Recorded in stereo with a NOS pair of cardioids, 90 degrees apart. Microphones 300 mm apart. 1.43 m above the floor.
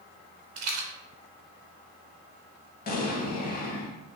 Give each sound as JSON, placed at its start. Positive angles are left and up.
{"t": 0.6, "sound": "a rattle", "azimuth_deg": -60, "distance_m": 0.7}
{"t": 2.9, "sound": "an explosion", "azimuth_deg": 30, "distance_m": 0.6}